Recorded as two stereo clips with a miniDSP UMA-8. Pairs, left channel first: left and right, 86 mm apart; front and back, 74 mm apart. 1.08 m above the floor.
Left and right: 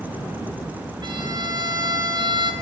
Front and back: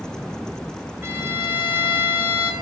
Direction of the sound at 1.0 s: 120° right.